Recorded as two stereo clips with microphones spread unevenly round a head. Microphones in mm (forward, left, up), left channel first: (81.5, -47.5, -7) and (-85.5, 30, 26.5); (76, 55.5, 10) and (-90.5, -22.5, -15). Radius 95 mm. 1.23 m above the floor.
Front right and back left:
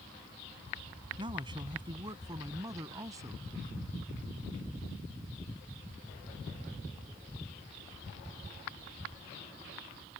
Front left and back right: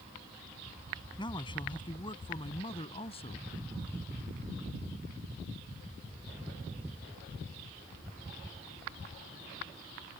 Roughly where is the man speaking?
Left.